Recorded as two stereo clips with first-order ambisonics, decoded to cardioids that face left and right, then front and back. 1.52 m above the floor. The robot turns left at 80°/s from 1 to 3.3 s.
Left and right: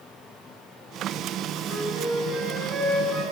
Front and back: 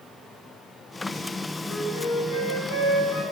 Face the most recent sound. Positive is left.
turn(degrees=-45)